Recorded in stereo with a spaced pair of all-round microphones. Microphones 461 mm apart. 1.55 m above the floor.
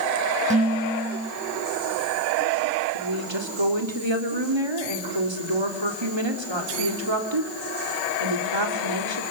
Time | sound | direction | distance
0.5 | dishes clattering | 15° right (ahead or behind) | 6 m
2.9 | a woman speaking | 70° right (ahead or behind) | 3.5 m